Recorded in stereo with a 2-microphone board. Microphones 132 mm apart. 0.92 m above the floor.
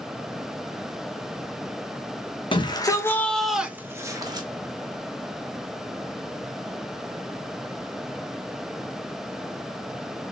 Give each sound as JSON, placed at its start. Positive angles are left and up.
{"t": 2.5, "sound": "a shout", "side_deg": 35, "distance_m": 1.3}